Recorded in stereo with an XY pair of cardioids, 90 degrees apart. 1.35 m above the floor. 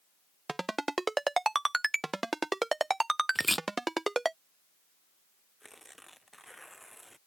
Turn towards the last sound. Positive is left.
turn(degrees=0)